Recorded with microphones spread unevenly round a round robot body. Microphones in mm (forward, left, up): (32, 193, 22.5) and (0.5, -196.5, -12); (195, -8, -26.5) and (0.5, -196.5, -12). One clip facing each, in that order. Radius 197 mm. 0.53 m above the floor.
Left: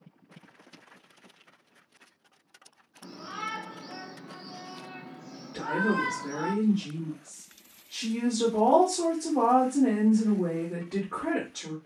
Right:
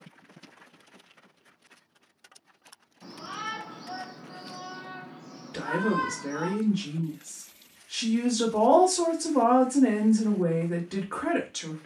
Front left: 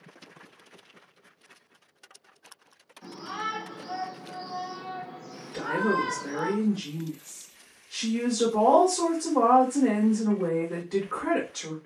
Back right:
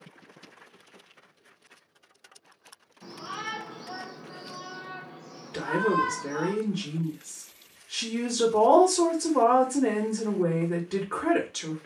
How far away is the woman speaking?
About 0.9 m.